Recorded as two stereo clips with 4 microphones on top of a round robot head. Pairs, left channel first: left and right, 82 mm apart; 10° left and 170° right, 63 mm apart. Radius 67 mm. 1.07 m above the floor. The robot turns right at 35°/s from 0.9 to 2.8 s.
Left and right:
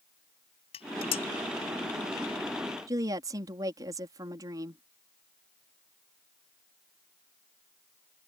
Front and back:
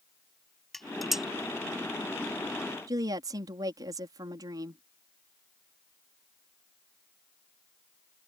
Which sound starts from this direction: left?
Dishes clattering, at 0.7 s.